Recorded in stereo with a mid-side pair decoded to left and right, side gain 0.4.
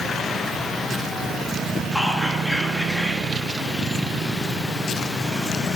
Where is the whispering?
5° left, 1.4 m.